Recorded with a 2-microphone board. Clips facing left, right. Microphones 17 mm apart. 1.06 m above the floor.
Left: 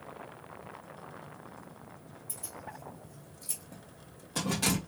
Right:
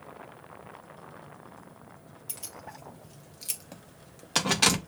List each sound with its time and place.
2.3 s keys jangling: 70° right (ahead or behind), 1.6 m; by 4.8 s 45° right (ahead or behind), 0.7 m